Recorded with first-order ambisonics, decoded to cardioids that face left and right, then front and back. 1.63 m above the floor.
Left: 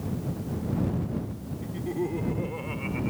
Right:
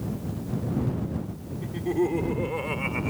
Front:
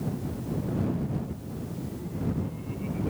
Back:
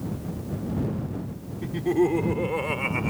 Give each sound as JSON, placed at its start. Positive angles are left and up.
{"t": 1.6, "sound": "laughter", "azimuth_deg": -165}